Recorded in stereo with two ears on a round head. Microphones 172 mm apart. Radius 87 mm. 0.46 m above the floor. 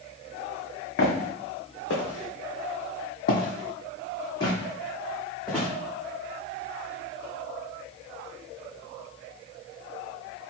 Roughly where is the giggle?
I don't hear a giggle.